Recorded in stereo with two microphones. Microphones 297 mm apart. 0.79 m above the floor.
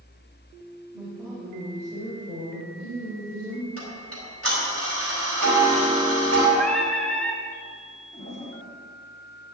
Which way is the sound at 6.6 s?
5° left (ahead or behind).